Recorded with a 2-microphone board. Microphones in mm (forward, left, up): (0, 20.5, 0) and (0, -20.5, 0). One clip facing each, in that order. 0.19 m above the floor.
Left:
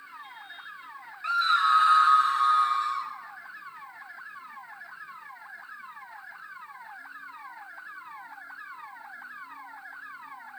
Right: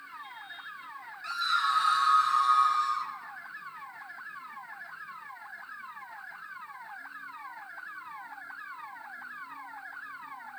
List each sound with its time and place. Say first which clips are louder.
1.2 s a scream: left 6 dB; 35° left (ahead or behind), 1.7 m; by 3.1 s 30° left (ahead or behind), 3 m